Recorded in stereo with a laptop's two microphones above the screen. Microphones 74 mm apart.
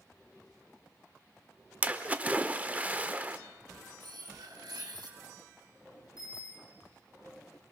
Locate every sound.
1.8 s a splash: 20° right (ahead or behind), 0.9 m
4.0 s cutlery clinking: 80° right, 5 m
6.2 s a bicycle bell: 60° left (ahead or behind), 5.5 m